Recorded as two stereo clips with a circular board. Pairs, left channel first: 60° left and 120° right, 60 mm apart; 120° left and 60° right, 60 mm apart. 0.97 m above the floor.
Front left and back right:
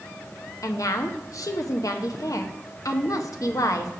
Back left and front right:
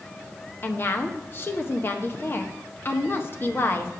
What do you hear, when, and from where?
0.6 s a woman speaking: 70° left, 0.7 m